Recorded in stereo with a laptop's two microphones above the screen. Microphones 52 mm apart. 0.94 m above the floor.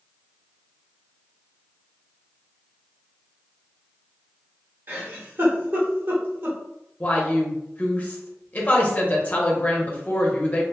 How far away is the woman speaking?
About 0.7 m.